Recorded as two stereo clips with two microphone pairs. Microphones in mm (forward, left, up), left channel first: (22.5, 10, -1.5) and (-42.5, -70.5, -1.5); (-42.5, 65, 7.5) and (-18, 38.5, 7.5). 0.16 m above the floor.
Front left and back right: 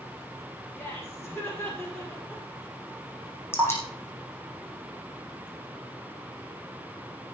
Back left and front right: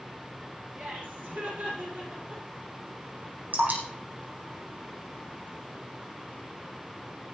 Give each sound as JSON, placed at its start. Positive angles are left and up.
{"t": 0.8, "sound": "laughter", "azimuth_deg": -15, "distance_m": 5.5}
{"t": 3.5, "sound": "dripping", "azimuth_deg": -15, "distance_m": 5.0}